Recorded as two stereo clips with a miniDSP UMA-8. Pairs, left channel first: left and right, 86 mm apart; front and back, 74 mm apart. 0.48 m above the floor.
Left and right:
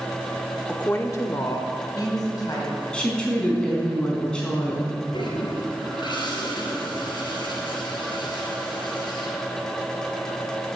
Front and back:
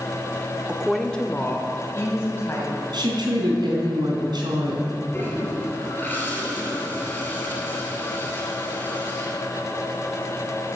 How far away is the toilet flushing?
About 3.5 m.